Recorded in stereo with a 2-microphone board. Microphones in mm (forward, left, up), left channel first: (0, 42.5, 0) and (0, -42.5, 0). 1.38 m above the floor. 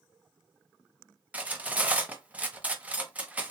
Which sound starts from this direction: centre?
Cutlery clinking, at 1.3 s.